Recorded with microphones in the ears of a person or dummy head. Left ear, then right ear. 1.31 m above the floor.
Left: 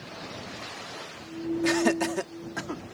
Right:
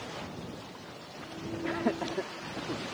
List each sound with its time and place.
1.6 s laughter: 85° left; by 2.8 s 60° left (ahead or behind)